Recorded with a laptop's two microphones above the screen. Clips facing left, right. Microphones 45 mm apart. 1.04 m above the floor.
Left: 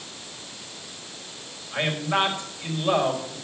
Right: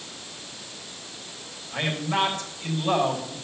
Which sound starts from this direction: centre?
A man speaking, at 1.7 s.